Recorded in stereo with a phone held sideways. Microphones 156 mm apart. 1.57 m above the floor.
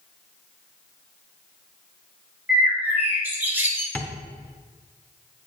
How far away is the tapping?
About 0.6 m.